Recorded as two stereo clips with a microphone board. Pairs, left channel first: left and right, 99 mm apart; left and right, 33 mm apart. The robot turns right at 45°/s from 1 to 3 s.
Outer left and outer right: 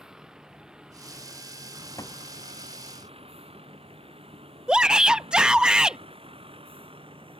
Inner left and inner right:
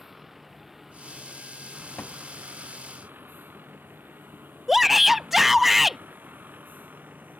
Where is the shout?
10° right (ahead or behind).